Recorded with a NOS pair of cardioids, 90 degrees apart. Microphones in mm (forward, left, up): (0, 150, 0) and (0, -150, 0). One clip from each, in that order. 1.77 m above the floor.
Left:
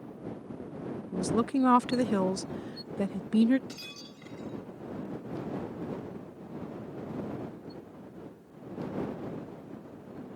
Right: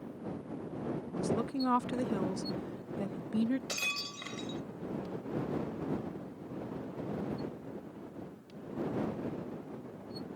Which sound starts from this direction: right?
Breaking glass, at 3.7 s.